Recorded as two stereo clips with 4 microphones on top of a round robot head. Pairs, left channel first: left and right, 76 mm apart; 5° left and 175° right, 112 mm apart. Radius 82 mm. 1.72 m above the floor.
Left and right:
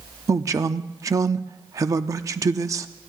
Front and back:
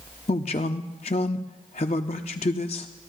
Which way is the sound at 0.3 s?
45° right.